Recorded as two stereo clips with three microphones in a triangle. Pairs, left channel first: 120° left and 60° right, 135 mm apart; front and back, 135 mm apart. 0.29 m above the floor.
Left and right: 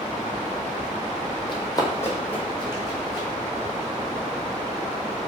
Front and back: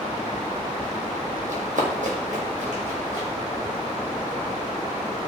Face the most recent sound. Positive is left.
turn(degrees=-150)